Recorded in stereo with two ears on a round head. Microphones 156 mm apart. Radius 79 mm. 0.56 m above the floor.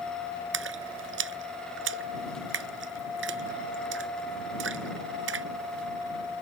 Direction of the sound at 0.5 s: 80° right.